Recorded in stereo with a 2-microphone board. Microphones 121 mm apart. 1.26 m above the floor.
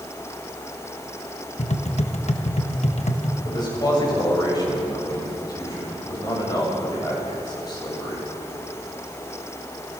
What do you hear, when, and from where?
1.6 s tapping: 65° left (ahead or behind), 1.3 m
3.5 s a man speaking: 35° left (ahead or behind), 7.5 m